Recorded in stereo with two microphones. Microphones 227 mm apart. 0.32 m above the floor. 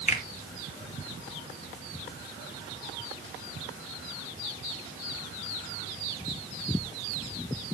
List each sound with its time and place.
0.1 s a finger snap: 30° left (ahead or behind), 2.5 m